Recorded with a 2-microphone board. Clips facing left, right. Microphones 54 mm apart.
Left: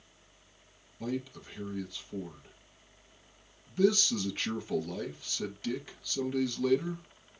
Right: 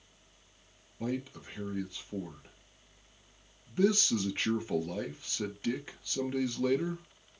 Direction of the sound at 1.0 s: 25° right (ahead or behind).